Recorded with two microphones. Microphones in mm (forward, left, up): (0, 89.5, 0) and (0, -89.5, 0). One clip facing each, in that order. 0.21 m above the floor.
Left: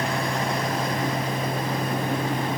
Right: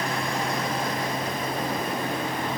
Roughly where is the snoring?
No snoring in this recording.